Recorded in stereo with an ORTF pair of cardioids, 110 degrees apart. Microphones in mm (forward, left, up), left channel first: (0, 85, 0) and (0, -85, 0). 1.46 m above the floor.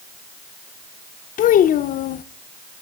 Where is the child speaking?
55° left, 0.9 m.